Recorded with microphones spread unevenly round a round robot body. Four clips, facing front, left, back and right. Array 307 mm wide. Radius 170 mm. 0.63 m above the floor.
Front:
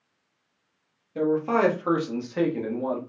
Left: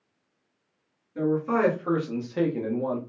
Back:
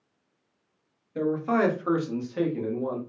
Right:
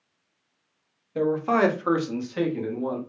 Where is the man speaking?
85° right, 1.2 m; by 3.0 s 55° left, 1.1 m.